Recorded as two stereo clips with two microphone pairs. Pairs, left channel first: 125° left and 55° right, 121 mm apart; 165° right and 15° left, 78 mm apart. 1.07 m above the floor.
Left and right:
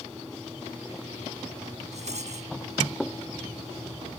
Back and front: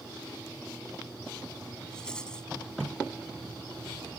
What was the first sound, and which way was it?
A rattle, 85° right.